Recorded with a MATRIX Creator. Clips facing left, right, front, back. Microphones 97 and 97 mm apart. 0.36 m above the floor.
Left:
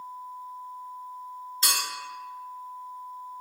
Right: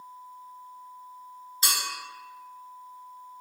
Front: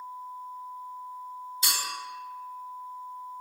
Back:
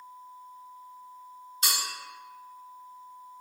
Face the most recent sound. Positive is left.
turn(degrees=-170)